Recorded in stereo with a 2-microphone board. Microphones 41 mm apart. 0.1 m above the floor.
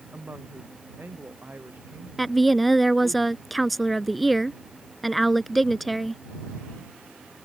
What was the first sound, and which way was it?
A woman speaking, 50° right (ahead or behind).